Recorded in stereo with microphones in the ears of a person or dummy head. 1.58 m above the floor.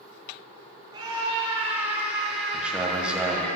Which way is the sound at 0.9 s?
20° right (ahead or behind).